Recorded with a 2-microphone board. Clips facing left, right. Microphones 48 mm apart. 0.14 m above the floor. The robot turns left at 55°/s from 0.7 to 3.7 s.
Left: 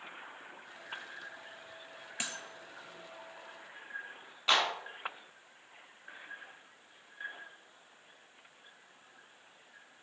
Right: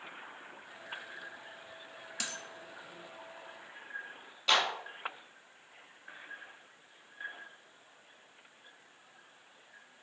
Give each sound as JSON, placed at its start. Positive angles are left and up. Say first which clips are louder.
{"t": 2.2, "sound": "a dropped coin", "louder": "left 1 dB", "side_deg": 30, "distance_m": 0.5}
{"t": 4.5, "sound": "a clap", "louder": "even", "side_deg": 20, "distance_m": 0.8}